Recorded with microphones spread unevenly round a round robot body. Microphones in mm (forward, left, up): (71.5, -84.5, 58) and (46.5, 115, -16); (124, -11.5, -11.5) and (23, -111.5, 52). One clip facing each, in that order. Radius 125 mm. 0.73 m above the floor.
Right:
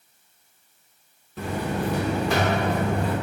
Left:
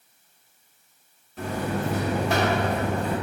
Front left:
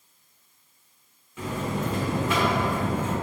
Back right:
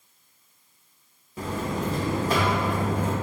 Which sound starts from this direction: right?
A buzzer, at 1.4 s.